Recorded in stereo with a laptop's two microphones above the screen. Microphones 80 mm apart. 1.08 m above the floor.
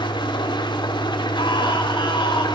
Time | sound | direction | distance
0.0 | an engine running | 70° left (ahead or behind) | 2.5 m
1.4 | a scream | 85° left | 5.5 m